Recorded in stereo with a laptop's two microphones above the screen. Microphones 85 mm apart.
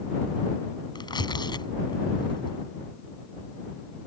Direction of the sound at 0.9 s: 55° left (ahead or behind).